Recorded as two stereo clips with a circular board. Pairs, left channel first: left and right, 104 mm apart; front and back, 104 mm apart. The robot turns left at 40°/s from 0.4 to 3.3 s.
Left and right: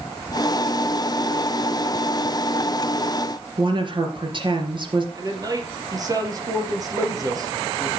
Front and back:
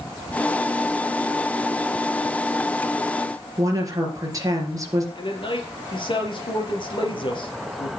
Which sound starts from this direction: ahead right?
A man speaking, at 5.2 s.